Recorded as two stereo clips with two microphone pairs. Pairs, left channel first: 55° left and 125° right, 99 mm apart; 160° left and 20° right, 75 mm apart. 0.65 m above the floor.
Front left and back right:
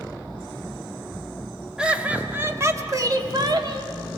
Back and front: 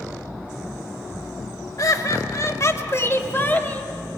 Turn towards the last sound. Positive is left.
turn(degrees=-135)